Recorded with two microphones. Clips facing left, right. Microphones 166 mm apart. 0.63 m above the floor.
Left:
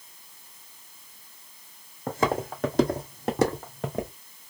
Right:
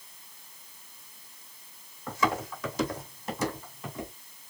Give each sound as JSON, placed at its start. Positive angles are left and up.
{"t": 2.1, "sound": "footsteps", "side_deg": 50, "distance_m": 1.9}